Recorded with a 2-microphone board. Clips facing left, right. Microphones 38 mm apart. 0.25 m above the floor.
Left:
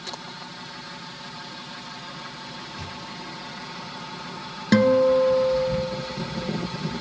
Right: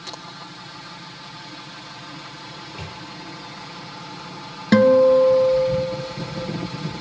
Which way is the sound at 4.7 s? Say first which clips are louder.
Right 4 dB; 5° right (ahead or behind).